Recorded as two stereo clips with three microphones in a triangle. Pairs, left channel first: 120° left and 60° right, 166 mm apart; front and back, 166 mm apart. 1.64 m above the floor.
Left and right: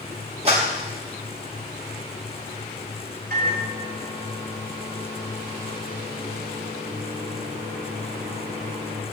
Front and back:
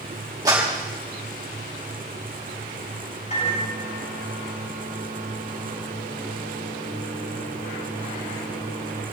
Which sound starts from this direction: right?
A clap, at 0.5 s.